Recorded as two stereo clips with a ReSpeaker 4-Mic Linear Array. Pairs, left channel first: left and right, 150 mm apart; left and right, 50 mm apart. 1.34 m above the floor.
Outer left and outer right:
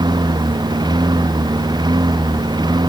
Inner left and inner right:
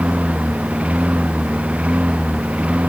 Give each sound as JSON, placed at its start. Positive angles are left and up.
{"t": 0.0, "sound": "a lawn mower", "side_deg": -30}